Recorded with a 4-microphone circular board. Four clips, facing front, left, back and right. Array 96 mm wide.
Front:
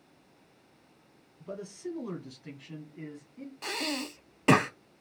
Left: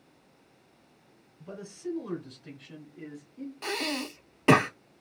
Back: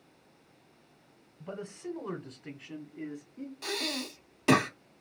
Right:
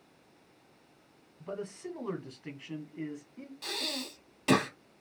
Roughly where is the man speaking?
Behind right.